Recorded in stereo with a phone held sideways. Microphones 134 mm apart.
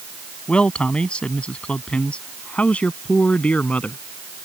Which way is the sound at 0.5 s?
5° left (ahead or behind).